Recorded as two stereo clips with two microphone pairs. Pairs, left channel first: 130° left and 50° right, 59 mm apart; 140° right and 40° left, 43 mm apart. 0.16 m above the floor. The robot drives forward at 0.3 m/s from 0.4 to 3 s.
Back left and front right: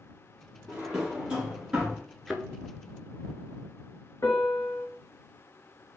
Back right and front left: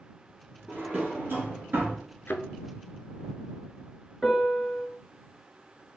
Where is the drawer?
20° left, 1.6 m; by 2.0 s 30° left, 1.3 m.